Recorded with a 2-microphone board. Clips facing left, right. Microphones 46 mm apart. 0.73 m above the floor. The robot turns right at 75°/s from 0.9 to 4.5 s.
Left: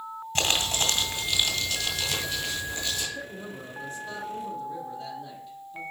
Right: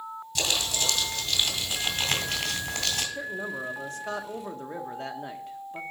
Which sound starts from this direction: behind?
A man speaking, at 3.1 s.